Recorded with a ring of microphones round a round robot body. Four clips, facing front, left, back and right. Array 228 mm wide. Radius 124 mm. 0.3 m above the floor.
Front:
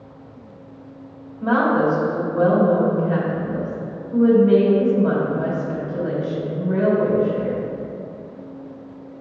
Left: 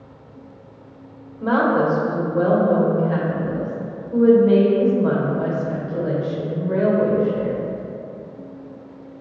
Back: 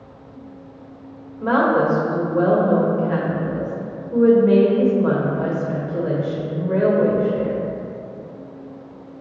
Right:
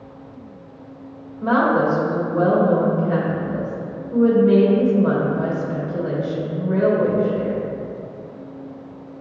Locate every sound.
1.4 s a woman speaking: 150° left, 1.3 m